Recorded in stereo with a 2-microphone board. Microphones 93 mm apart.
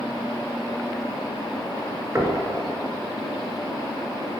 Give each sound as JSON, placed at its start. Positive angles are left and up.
{"t": 2.1, "sound": "knocking", "side_deg": -30, "distance_m": 1.4}